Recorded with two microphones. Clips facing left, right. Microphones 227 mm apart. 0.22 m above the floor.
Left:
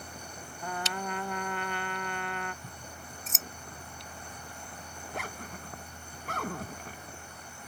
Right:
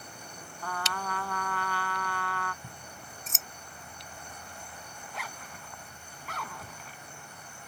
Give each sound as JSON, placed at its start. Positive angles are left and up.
{"t": 0.6, "sound": "a trumpet", "side_deg": 20}
{"t": 2.6, "sound": "scissors", "side_deg": 0}
{"t": 5.0, "sound": "a zipper", "side_deg": 50}